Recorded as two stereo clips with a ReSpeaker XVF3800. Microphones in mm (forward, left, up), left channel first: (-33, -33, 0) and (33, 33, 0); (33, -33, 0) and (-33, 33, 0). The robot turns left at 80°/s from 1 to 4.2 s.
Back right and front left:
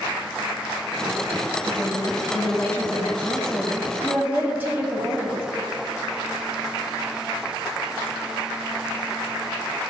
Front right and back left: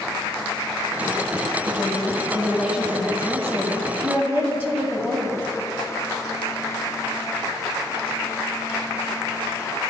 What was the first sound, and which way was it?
A woman speaking, 70° right.